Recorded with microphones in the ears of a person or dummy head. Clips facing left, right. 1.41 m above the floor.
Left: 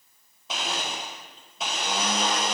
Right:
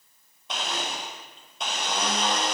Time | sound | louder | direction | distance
0.5 | a blender | even | 5° left (ahead or behind) | 1.0 m